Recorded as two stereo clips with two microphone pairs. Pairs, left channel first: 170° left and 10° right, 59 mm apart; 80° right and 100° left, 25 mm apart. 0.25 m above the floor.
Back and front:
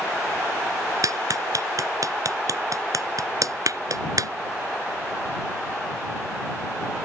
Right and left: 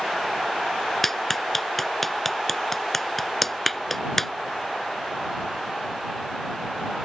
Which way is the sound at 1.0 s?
5° right.